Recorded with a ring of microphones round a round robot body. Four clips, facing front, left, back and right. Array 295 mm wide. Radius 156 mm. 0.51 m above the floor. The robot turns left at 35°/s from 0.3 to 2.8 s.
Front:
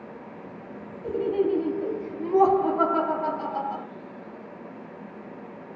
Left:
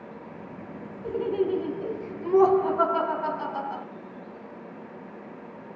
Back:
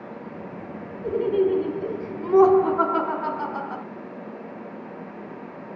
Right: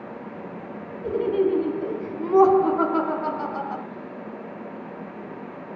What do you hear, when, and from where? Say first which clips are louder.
1.0 s laughter: right 4 dB, back 3 dB; 90° right, 1.2 m; by 3.9 s 150° right, 1.2 m